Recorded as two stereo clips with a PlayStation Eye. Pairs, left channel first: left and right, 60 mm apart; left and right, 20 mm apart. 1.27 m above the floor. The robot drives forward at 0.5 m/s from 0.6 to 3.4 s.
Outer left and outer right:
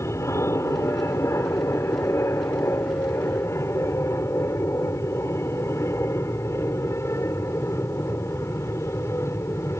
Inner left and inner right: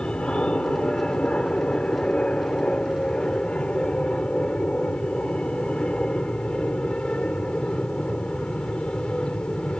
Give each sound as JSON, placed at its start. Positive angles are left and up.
{"t": 0.0, "sound": "an aircraft", "side_deg": 55}